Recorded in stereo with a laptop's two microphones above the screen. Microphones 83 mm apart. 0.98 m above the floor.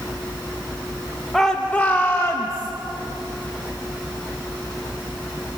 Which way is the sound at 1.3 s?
5° left (ahead or behind).